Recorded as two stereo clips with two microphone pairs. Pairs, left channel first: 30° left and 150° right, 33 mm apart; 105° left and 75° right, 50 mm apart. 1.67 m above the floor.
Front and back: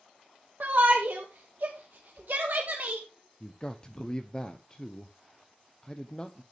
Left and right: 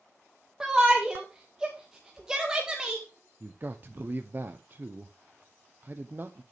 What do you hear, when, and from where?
0.6 s a shout: 150° right, 1.4 m
3.4 s a man speaking: 30° right, 0.7 m